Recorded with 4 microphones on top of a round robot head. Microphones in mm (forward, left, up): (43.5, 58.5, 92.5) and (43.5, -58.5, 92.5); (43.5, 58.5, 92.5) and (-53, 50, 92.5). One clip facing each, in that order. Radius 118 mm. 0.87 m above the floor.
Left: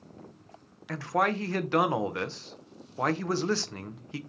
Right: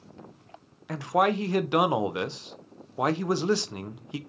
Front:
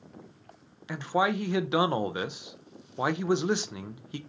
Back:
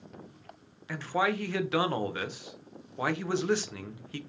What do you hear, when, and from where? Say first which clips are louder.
0.9 s a man speaking: right 4 dB, front 2 dB; 40° right, 0.5 m